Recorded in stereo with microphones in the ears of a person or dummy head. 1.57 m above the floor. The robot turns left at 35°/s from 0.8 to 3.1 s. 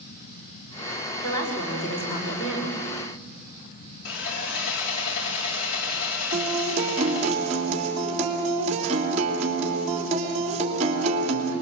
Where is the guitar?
40° right (ahead or behind), 3 m.